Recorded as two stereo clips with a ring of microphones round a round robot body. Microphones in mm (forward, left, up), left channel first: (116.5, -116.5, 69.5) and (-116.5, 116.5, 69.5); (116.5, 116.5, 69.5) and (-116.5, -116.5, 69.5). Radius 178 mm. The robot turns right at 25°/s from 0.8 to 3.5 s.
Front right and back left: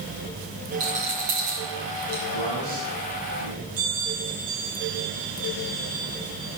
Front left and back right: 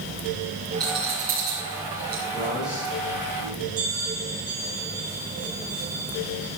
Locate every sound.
0.8 s a rattle: 145° left, 6.5 m; by 2.2 s straight behind, 6.5 m
2.3 s a man speaking: 130° left, 4.5 m; by 3.7 s 160° left, 4.5 m
3.8 s a bell: straight behind, 8 m